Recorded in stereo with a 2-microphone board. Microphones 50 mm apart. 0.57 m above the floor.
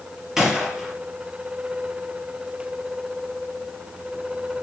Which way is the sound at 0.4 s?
10° right (ahead or behind).